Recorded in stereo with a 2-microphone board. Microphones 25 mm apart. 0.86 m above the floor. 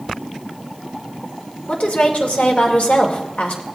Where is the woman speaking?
75° left (ahead or behind), 2.5 m.